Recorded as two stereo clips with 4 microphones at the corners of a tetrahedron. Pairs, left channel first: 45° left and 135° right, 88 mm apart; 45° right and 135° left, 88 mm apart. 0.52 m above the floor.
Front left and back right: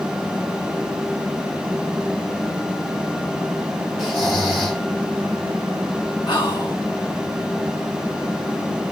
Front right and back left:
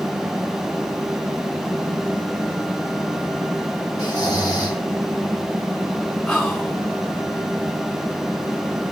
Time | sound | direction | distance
4.0 | snoring | 50° right | 1.9 m
6.3 | whispering | 35° left | 1.8 m